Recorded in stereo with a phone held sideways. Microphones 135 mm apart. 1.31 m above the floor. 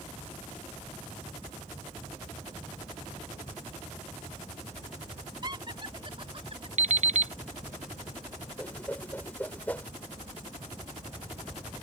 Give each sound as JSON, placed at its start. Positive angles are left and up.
{"t": 5.4, "sound": "laughter", "side_deg": -35}
{"t": 6.8, "sound": "an alarm clock", "side_deg": -60}
{"t": 8.6, "sound": "a whoosh", "side_deg": 10}